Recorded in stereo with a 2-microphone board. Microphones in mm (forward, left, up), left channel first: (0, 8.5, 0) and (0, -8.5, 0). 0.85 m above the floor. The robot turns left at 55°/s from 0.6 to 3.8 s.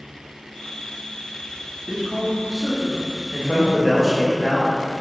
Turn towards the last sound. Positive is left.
turn(degrees=15)  # may be behind; listen again after turning